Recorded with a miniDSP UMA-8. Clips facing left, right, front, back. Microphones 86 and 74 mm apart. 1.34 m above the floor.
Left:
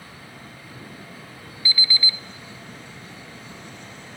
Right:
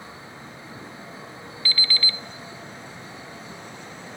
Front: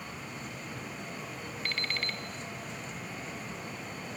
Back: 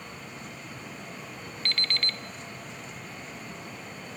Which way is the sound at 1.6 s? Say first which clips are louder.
Left 1 dB, back 3 dB; 50° left.